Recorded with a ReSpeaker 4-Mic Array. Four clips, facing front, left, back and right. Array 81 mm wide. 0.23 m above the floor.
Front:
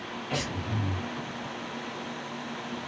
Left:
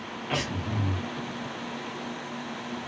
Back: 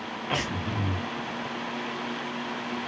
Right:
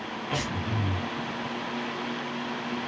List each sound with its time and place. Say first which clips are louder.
0.3 s breathing: left 1 dB, back 3 dB; 170° left, 1.2 m